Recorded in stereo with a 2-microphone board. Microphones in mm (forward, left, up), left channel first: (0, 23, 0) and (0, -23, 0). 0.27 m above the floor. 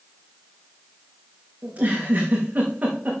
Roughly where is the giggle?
Right.